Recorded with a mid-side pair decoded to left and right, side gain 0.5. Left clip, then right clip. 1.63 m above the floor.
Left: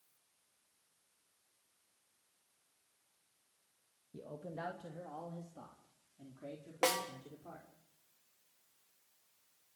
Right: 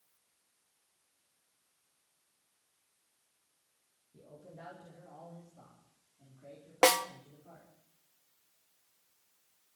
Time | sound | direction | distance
4.1 | a man speaking | 65° left | 2 m
6.8 | a snare drum | 50° right | 1.4 m